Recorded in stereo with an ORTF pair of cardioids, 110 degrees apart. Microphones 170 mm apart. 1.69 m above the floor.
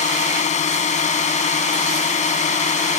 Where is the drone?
40° left.